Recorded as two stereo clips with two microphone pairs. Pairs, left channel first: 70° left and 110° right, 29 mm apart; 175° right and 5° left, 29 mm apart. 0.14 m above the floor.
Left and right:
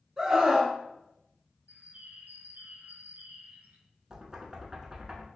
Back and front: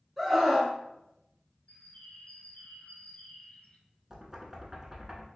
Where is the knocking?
45° right, 0.9 m.